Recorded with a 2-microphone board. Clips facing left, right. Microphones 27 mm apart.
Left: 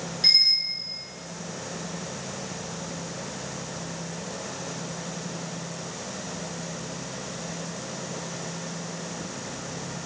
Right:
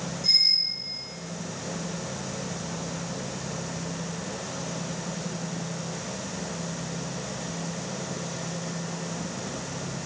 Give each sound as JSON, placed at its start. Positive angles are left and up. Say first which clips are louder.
{"t": 0.2, "sound": "a bicycle bell", "louder": "left 2 dB", "side_deg": 70, "distance_m": 7.5}